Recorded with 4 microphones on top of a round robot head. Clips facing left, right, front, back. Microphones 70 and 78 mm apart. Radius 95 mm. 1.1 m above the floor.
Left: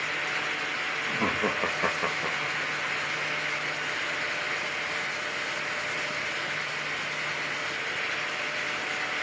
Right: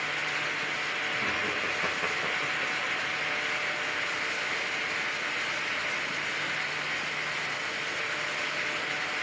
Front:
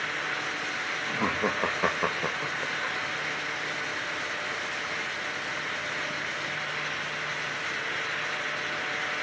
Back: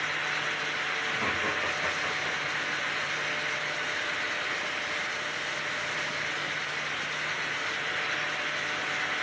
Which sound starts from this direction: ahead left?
Laughter, at 1.1 s.